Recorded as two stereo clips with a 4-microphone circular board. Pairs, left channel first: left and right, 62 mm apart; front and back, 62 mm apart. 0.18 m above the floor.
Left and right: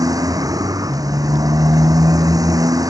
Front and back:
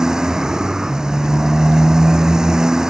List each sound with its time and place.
0.0 s a motorcycle: 100° right